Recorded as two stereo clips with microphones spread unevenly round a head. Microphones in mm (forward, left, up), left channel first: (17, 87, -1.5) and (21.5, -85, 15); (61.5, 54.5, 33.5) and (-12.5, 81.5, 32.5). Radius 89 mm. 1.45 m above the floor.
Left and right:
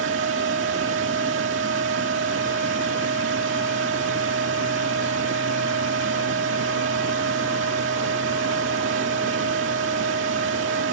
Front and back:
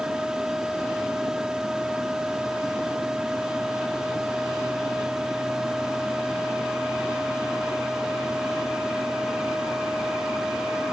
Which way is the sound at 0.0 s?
115° right.